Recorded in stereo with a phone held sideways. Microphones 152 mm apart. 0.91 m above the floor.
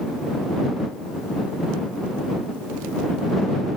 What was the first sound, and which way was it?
Only background noise.